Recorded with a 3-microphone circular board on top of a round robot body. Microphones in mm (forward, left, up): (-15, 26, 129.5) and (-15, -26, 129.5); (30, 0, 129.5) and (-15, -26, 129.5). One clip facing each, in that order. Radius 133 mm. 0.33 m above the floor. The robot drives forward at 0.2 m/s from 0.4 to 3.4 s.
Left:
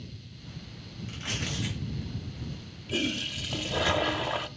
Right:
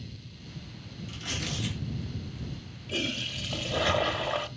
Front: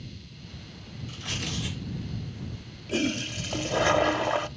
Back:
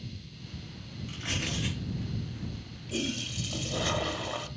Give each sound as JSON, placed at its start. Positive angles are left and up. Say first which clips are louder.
{"t": 1.1, "sound": "tearing paper", "louder": "left 1 dB, even", "azimuth_deg": 145, "distance_m": 4.5}
{"t": 2.9, "sound": "a toilet flushing", "louder": "left 2 dB, front 6 dB", "azimuth_deg": 0, "distance_m": 0.7}